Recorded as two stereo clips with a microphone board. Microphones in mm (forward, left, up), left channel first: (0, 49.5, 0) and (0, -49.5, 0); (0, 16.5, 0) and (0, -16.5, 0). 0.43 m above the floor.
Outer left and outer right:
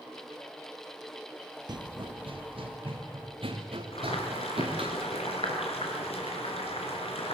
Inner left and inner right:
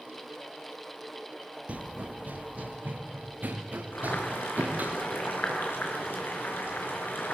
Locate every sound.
1.7 s running footsteps: 45° right (ahead or behind), 0.5 m; by 4.9 s 65° right (ahead or behind), 3 m
3.9 s boiling: 85° left, 4 m